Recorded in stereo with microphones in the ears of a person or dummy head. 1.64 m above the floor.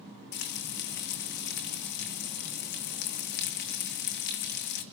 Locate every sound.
0.3 s frying: 55° left (ahead or behind), 2 m